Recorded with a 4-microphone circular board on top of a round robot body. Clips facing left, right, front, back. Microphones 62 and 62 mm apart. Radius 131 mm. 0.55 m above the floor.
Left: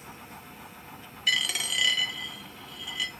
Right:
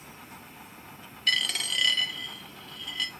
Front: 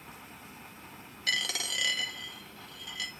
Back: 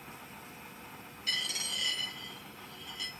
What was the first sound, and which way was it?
A dropped coin, 5° left.